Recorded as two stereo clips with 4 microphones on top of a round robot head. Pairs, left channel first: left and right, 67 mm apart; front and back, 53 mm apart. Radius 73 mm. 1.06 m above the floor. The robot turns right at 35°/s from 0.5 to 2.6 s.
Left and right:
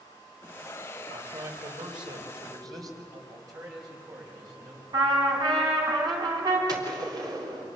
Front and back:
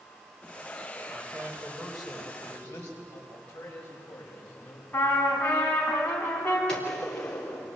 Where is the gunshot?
75° right, 3.5 m.